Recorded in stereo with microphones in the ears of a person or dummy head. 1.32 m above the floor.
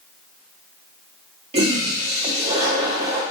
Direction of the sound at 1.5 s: 25° right (ahead or behind).